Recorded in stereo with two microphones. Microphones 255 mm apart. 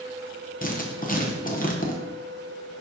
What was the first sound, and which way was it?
Writing, 35° left (ahead or behind).